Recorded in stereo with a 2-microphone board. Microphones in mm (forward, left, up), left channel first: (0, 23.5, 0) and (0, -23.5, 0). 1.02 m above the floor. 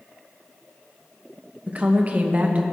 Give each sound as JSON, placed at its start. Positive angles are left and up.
{"t": 1.7, "sound": "a woman speaking", "side_deg": -30, "distance_m": 1.1}